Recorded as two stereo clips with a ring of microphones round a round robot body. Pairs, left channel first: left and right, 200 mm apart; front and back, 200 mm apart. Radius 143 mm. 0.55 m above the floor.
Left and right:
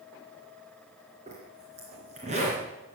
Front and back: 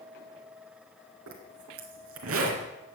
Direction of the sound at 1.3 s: 160° right.